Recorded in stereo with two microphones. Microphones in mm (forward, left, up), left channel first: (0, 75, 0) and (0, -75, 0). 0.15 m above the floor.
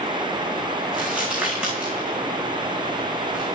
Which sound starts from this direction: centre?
Crumpling, at 0.9 s.